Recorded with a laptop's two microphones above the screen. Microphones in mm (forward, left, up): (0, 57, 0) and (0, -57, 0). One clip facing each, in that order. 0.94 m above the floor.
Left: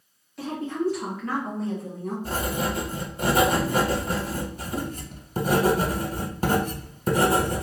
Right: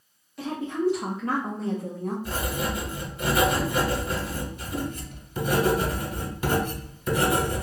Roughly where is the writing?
Left.